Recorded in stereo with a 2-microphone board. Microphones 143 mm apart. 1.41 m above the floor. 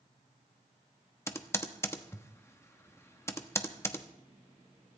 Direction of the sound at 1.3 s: 20° left (ahead or behind).